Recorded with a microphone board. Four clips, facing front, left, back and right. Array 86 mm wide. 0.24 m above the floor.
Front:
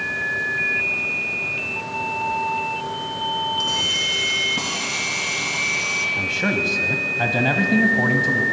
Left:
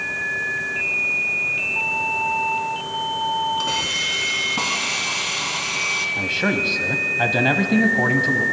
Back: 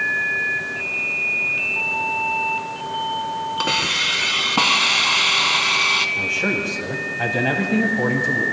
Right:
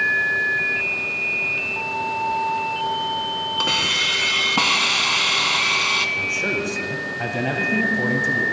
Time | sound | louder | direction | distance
3.6 | a hiss | right 1 dB, back 4 dB | 150° right | 0.7 m
6.2 | a man speaking | left 2 dB, even | 75° left | 1.1 m